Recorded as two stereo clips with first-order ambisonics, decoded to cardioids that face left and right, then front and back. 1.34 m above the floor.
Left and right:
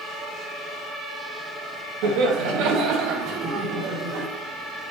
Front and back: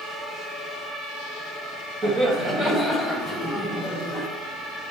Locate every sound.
2.0 s laughter: 110° right, 1.8 m; by 4.2 s 80° right, 2.5 m